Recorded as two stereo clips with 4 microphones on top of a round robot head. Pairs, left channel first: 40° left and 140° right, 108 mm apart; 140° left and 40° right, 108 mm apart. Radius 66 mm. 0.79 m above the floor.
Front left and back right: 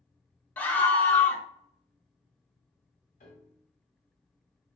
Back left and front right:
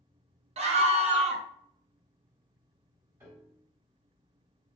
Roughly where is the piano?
Ahead left.